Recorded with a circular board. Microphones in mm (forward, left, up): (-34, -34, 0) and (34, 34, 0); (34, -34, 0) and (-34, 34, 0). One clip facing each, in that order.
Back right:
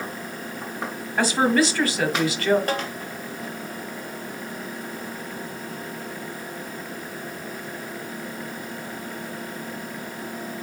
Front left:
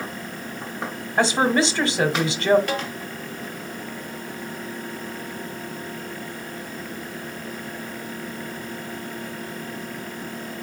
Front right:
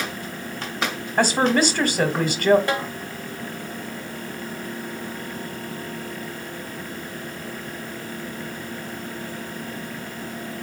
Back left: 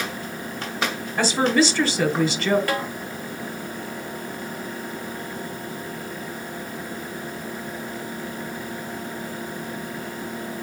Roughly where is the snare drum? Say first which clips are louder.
Back right 1 dB, front right 1 dB; right.